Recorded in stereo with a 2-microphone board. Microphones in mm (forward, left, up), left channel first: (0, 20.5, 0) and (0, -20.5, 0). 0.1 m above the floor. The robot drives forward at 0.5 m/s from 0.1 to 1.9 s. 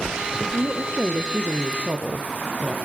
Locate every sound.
0.5 s a woman speaking: 50° right (ahead or behind), 3.5 m; by 2.8 s 45° right (ahead or behind), 4 m